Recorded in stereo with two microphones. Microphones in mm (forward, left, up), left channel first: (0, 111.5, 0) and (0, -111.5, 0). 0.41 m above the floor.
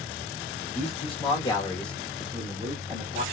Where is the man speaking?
30° left (ahead or behind), 1.3 m; by 3.2 s 25° right (ahead or behind), 1.5 m.